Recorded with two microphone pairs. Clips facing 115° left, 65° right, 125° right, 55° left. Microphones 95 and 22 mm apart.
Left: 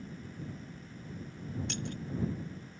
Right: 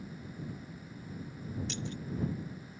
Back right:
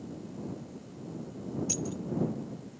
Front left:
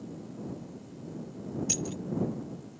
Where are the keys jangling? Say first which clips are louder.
Left 1 dB, front left 3 dB; 120° left.